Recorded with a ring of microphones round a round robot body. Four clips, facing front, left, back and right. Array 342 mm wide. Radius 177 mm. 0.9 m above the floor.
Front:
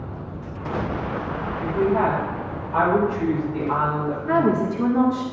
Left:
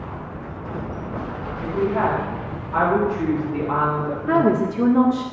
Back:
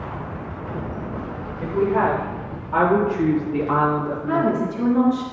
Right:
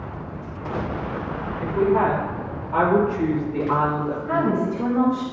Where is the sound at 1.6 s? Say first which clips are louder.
Right 2 dB, back 1 dB; 160° right, 5 m; by 4.5 s 150° left, 2.5 m.